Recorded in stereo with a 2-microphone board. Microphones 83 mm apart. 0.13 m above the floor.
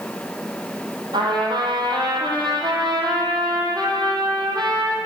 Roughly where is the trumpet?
Right.